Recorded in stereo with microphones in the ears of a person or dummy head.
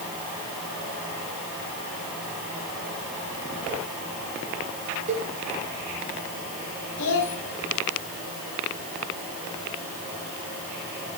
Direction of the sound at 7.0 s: 80° left.